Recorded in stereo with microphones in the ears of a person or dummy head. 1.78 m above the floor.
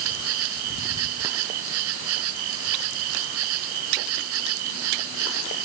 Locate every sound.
0.0 s an insect: 80° right